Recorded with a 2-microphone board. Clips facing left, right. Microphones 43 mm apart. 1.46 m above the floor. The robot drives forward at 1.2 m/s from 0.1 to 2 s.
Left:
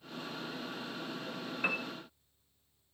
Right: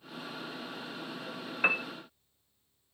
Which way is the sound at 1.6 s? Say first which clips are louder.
Right 6 dB; 30° right (ahead or behind).